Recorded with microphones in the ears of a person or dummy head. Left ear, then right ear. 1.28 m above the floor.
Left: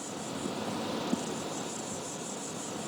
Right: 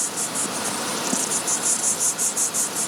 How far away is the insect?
About 0.9 m.